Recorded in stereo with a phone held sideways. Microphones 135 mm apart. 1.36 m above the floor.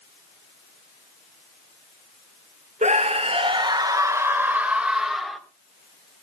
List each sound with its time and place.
2.8 s a scream: 60° right (ahead or behind), 1.3 m; by 5.4 s centre (ahead or behind), 2 m